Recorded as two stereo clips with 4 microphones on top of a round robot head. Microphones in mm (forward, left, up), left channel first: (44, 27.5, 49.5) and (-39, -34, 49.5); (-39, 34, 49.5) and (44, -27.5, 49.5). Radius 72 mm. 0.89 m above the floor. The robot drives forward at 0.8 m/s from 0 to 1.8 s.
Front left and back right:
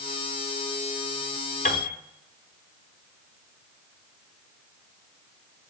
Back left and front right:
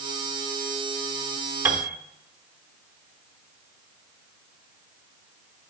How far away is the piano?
About 0.9 m.